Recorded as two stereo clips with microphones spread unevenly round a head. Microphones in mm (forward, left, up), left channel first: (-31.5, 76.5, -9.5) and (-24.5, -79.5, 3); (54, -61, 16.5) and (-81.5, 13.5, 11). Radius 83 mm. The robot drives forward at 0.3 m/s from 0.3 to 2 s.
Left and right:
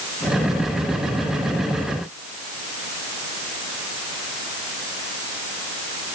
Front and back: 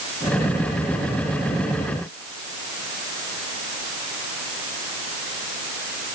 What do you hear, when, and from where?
Only background noise.